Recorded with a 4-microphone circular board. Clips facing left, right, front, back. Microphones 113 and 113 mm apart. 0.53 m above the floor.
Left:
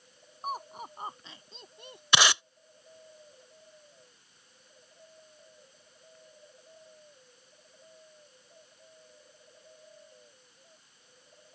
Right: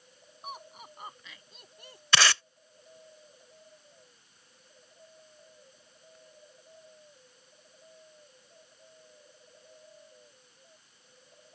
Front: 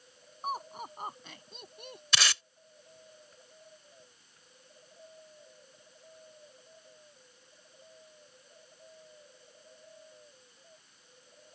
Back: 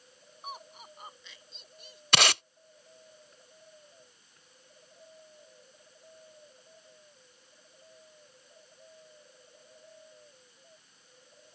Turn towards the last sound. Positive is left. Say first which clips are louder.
# left 1 dB, back 6 dB
turn(degrees=160)